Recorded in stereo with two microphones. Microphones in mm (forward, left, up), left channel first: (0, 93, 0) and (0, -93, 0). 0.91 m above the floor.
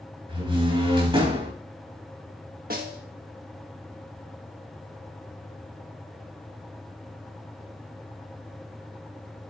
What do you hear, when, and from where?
0.3 s a door slam: 30° right (ahead or behind), 3.5 m
2.7 s a snare drum: 55° right (ahead or behind), 1.4 m